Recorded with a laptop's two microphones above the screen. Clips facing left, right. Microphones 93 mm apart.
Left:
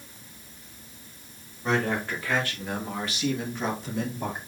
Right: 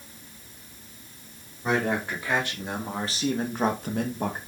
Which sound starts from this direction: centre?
A man speaking, at 1.6 s.